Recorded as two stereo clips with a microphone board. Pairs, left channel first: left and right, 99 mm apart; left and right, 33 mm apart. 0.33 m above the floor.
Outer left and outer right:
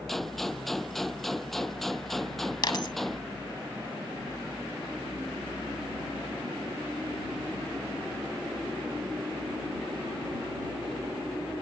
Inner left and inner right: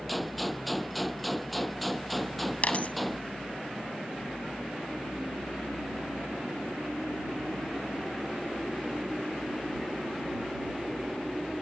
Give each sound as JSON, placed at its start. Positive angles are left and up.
{"t": 0.1, "sound": "a gunshot", "side_deg": 0}
{"t": 2.6, "sound": "a dropped coin", "side_deg": 50}